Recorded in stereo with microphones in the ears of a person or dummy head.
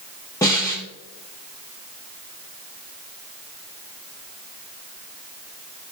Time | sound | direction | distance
0.4 | a snare drum | 15° left (ahead or behind) | 1.3 m